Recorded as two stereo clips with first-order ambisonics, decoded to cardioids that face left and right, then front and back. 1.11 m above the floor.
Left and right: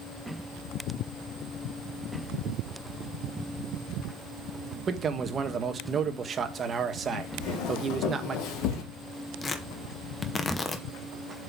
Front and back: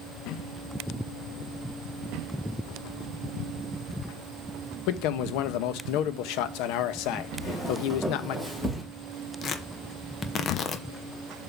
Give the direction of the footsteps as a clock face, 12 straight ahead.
9 o'clock.